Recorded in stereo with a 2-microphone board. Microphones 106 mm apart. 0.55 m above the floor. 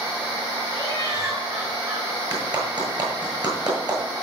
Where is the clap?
40° right (ahead or behind), 8 m.